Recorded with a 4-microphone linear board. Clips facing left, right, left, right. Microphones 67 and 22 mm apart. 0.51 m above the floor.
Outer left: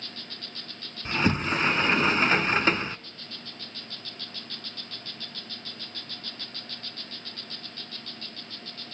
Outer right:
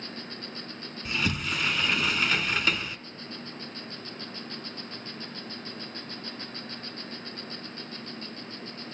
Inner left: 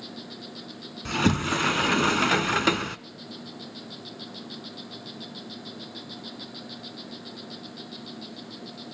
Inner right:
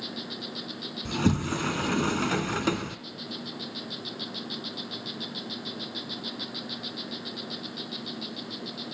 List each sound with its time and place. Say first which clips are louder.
0.0 s an insect: outer right 4 dB, inner right 4 dB; 25° right (ahead or behind), 1.1 m
1.1 s a sliding door: outer left 5 dB, inner left 3 dB; 35° left (ahead or behind), 0.9 m